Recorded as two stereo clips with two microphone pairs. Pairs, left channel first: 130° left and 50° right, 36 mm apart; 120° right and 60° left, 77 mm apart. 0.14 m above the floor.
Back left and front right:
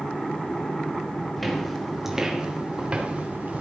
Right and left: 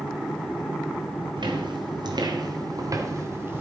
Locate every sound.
1.4 s footsteps: 45° left, 3.5 m; by 3.6 s 5° right, 2.5 m